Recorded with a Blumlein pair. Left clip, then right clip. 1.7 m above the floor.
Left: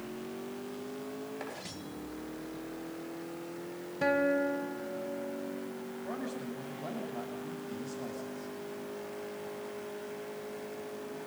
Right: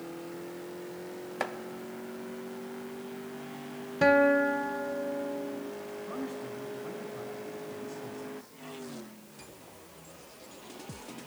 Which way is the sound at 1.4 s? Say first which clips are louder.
Right 12 dB; 60° right.